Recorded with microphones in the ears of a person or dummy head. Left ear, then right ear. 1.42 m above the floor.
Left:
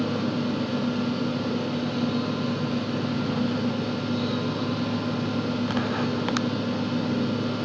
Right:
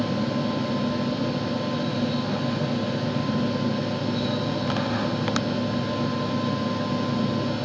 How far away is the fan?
About 1.2 m.